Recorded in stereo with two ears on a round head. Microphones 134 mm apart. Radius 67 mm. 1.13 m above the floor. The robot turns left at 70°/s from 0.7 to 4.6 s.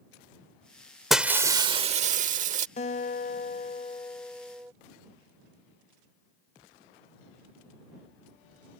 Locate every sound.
1.1 s breaking glass: straight ahead; by 2.7 s 110° right
2.8 s a guitar: 115° left; by 4.7 s 15° right